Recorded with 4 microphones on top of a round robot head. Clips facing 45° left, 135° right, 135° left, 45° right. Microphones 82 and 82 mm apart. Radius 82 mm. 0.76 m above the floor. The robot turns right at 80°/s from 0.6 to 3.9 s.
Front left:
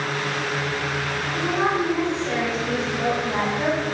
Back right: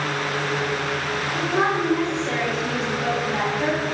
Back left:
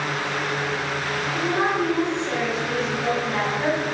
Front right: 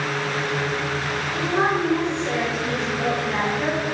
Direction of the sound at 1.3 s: 135° right.